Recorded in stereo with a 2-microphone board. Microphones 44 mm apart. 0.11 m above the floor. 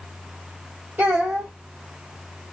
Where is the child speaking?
45° right (ahead or behind), 2 m.